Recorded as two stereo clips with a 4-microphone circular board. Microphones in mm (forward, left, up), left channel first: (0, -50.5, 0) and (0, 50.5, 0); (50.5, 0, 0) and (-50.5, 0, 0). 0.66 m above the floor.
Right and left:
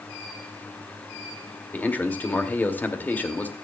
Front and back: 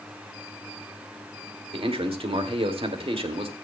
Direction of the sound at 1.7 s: 160° right.